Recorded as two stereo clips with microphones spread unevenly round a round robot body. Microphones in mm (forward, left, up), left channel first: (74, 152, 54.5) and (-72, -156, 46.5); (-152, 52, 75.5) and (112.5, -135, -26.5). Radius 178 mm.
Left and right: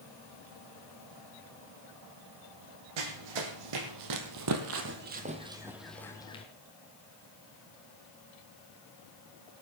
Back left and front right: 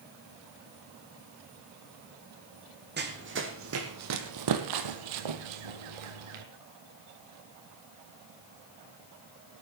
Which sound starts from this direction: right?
Running footsteps, at 3.0 s.